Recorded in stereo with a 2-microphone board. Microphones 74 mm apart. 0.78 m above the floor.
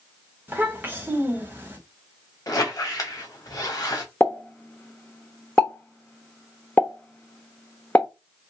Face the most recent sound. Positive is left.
turn(degrees=20)  # may be behind; listen again after turning